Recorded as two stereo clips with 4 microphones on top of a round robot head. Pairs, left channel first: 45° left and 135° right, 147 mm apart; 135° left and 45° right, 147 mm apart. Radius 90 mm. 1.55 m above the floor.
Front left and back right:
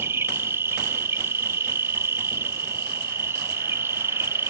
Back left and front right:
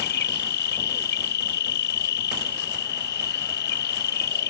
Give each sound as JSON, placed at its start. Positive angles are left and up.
{"t": 0.0, "sound": "an insect", "azimuth_deg": 150}